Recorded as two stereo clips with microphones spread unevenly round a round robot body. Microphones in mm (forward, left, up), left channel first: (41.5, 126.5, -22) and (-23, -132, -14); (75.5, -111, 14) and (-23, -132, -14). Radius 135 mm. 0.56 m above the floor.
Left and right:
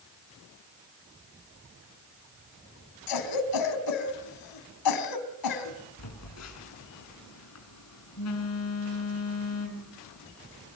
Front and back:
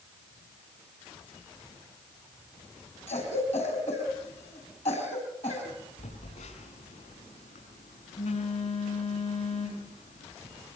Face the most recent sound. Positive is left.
turn(degrees=45)